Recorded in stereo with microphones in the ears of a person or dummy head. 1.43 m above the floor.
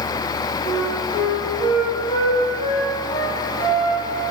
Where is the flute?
25° left (ahead or behind), 6 m.